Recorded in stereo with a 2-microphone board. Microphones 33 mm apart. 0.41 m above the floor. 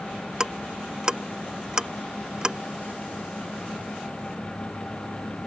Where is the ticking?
20° right (ahead or behind).